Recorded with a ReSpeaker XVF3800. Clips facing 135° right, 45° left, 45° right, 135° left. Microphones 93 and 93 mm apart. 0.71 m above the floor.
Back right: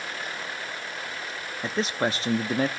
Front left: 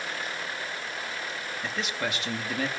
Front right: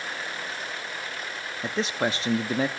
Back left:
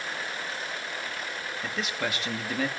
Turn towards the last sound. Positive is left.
turn(degrees=-90)